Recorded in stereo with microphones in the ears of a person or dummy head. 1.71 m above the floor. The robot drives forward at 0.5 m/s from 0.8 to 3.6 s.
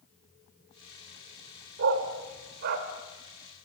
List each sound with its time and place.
1.8 s a dog barking: 65° right (ahead or behind), 3 m; by 2.9 s 55° right (ahead or behind), 3 m